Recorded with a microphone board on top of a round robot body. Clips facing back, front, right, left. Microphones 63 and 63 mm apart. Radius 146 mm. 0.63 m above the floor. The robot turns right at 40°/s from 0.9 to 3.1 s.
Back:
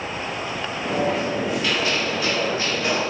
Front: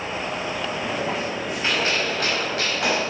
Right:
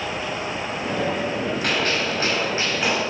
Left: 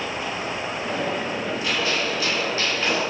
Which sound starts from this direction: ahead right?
A gunshot, at 1.6 s.